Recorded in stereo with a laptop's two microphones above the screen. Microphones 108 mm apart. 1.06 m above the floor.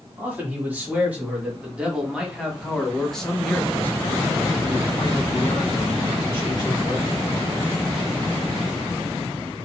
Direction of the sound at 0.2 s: 20° right (ahead or behind).